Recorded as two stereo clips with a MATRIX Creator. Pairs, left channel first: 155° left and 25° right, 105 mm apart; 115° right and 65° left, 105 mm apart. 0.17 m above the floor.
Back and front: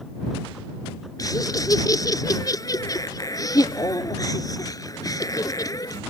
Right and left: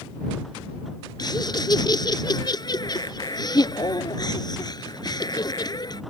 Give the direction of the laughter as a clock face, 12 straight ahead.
5 o'clock.